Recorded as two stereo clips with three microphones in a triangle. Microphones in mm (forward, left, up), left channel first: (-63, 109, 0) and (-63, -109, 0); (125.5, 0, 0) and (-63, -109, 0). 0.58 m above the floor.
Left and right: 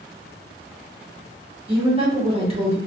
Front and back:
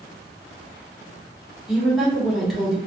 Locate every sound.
1.7 s a woman speaking: 60° right, 1.4 m